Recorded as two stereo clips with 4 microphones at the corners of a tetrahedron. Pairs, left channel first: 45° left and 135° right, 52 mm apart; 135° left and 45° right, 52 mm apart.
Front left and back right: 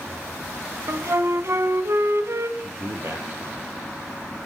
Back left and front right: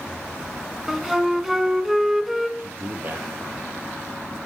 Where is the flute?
135° right, 1.7 m.